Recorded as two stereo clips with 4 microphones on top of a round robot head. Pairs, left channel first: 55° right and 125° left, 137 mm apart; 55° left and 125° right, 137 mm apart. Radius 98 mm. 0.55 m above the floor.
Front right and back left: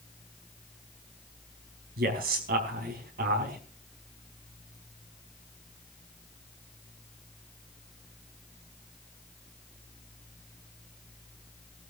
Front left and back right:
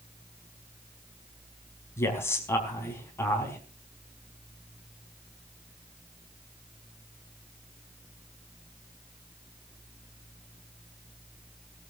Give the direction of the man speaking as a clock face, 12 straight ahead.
8 o'clock.